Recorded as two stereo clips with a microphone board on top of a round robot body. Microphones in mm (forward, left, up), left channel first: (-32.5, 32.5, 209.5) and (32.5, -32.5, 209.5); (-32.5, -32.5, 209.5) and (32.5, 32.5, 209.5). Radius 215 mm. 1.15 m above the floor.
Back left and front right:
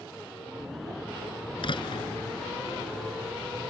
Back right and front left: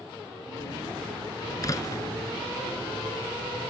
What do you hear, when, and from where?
1.6 s a door slam: 170° left